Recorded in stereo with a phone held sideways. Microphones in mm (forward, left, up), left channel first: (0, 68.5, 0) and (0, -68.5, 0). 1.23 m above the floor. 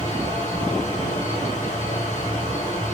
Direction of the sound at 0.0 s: 55° left (ahead or behind).